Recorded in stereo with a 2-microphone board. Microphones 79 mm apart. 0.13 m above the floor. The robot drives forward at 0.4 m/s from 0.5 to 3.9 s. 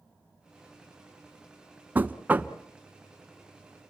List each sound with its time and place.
1.9 s knocking: 20° right (ahead or behind), 0.7 m